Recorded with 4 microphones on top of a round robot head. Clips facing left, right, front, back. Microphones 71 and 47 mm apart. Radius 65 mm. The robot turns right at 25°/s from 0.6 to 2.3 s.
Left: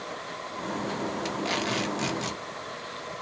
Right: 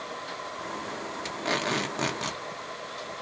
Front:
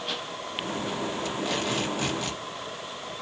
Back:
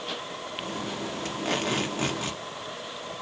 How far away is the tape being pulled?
About 1.1 m.